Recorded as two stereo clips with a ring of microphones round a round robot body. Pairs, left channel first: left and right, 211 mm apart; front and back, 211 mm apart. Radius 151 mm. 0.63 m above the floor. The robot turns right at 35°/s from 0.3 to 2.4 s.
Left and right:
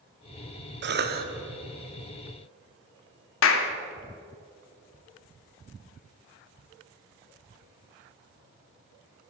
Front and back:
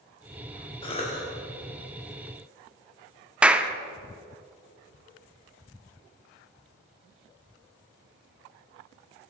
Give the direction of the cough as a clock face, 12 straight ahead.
2 o'clock.